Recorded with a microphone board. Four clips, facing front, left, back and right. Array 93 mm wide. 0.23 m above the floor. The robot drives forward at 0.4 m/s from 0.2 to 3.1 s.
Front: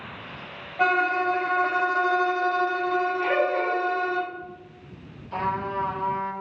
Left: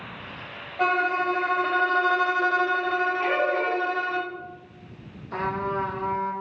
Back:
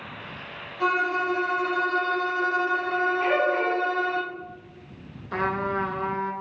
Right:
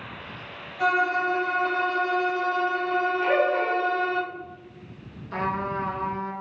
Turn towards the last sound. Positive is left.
turn(degrees=-175)